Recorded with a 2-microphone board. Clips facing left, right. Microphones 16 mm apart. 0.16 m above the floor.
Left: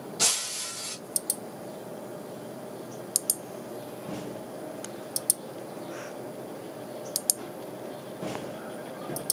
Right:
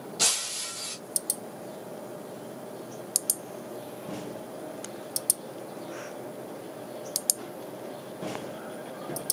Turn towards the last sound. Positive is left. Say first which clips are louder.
# even
turn(degrees=-10)  # may be behind; listen again after turning